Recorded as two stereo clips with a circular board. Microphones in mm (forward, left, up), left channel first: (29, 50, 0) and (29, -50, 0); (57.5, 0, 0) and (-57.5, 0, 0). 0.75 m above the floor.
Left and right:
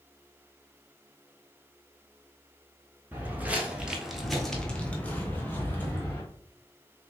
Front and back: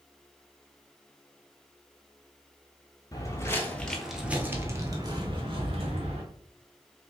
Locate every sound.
3.1 s footsteps: 30° right, 0.9 m; by 6.2 s 155° left, 1.4 m